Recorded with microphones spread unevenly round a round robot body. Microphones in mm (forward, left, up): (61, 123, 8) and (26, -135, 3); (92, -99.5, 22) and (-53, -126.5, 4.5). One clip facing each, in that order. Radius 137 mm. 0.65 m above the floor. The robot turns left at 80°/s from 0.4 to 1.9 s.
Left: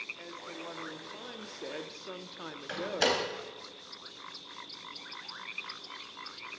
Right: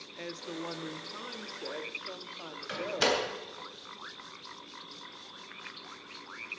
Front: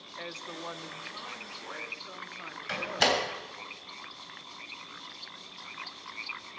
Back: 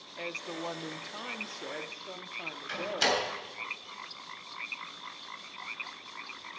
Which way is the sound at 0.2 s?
105° right.